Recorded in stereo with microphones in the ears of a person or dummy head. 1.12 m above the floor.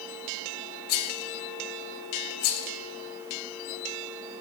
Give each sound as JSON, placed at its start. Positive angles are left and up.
{"t": 0.9, "sound": "a rattle", "side_deg": 50, "distance_m": 0.8}